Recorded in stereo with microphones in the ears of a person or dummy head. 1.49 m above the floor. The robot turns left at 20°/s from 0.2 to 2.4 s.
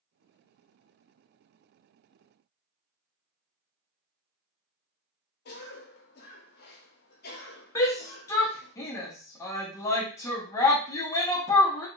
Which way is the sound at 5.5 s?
55° left (ahead or behind).